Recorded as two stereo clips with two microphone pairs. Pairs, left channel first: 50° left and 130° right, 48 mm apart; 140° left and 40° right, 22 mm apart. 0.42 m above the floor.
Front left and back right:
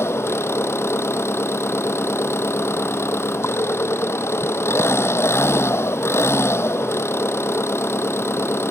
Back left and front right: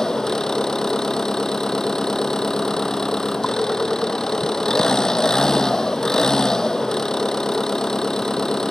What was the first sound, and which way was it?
An engine running, 75° left.